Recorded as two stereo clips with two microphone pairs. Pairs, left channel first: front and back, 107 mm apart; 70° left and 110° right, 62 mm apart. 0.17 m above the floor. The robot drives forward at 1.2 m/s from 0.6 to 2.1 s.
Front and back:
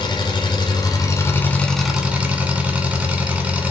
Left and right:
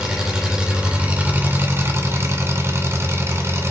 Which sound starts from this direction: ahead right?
An engine running, at 0.0 s.